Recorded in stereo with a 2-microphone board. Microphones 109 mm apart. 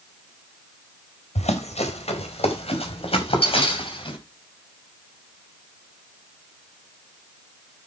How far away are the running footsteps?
About 4 m.